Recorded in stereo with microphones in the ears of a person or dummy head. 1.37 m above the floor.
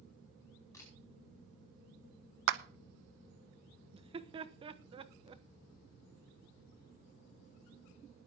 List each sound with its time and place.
0.7 s a camera shutter: 20° left (ahead or behind), 5 m
2.5 s a clap: 70° right (ahead or behind), 0.9 m
3.9 s laughter: 25° right (ahead or behind), 1.1 m